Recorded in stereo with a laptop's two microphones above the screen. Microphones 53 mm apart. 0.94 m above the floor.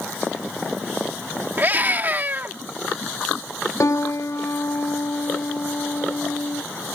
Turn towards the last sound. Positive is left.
turn(degrees=70)  # may be behind; listen again after turning